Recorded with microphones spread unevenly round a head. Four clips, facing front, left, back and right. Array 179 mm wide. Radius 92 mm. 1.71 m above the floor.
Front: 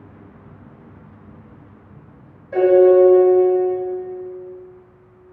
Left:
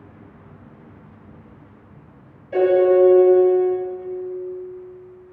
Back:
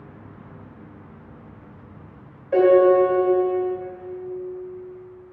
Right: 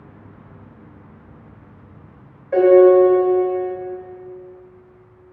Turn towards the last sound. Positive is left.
turn(degrees=-150)